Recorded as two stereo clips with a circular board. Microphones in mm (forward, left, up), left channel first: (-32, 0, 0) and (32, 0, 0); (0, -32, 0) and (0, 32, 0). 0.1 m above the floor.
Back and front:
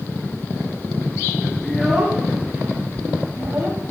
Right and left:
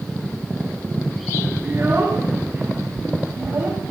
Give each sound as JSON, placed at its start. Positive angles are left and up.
{"t": 1.6, "sound": "a child speaking", "azimuth_deg": 100, "distance_m": 1.3}